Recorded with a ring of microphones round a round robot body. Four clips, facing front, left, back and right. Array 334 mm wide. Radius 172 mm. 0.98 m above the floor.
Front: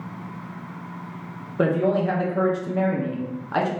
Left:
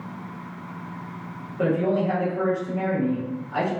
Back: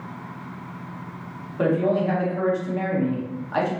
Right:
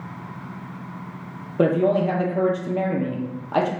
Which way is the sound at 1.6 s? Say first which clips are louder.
Right 4 dB, even; 65° right.